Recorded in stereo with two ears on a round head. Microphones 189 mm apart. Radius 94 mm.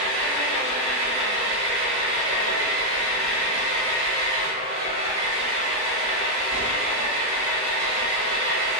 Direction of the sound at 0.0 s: 30° right (ahead or behind).